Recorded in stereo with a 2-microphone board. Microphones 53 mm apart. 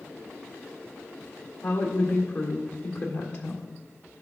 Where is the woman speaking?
50° left (ahead or behind), 1.6 m.